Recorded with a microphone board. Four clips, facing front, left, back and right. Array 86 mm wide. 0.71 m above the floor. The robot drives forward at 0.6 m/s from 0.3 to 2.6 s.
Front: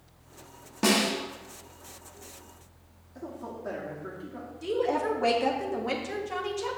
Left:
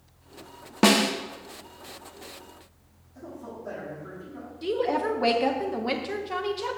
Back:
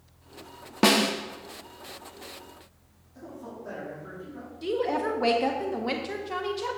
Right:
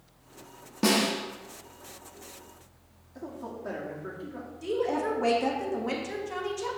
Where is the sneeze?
I don't hear a sneeze.